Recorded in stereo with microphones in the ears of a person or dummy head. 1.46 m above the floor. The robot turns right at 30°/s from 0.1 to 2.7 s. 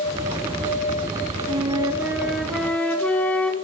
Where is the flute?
30° right, 3.5 m; by 3.5 s 10° left, 3.5 m.